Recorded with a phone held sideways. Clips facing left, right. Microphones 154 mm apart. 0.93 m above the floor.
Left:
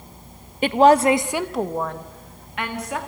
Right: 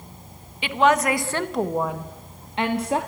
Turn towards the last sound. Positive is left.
turn(degrees=-30)  # may be behind; listen again after turning